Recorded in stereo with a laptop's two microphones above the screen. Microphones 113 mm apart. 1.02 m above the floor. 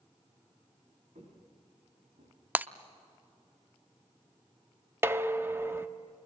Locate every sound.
1.1 s footsteps: 85° right, 8.5 m
2.5 s breaking glass: 15° right (ahead or behind), 0.5 m
5.0 s dishes clattering: 20° right (ahead or behind), 1.1 m